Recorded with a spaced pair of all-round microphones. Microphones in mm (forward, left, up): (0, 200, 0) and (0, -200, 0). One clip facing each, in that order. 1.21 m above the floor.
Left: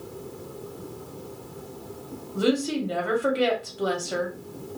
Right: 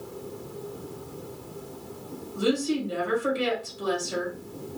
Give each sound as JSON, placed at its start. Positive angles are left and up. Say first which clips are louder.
{"t": 2.4, "sound": "a woman speaking", "louder": "left 1 dB", "side_deg": 75, "distance_m": 1.1}